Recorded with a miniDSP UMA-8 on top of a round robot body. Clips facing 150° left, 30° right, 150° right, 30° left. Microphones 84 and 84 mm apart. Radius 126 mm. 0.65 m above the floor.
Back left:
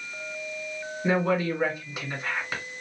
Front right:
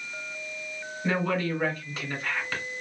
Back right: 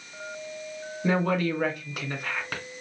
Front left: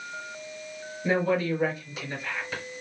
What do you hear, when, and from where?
1.0 s a woman speaking: 130° right, 2.0 m